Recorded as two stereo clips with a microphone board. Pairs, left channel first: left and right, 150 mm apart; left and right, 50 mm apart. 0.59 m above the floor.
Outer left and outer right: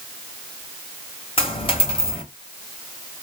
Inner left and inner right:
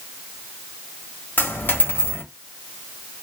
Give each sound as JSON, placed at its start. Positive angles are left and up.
{"t": 1.4, "sound": "a dropped coin", "side_deg": 35, "distance_m": 0.9}